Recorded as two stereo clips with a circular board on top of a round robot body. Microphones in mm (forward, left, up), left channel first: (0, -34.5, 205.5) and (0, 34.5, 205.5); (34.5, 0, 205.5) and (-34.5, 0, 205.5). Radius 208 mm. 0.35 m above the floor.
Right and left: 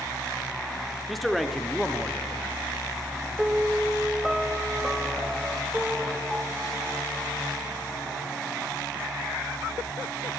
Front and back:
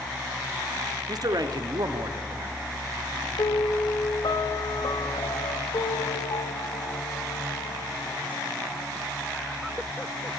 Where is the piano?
10° left, 0.9 m.